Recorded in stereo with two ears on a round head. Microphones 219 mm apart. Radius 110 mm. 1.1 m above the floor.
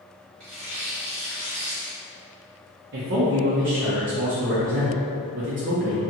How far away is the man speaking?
About 0.6 m.